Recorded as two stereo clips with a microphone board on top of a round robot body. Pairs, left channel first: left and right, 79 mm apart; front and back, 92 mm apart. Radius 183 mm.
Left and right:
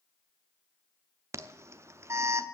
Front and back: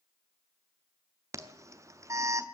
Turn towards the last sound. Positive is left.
turn(degrees=-135)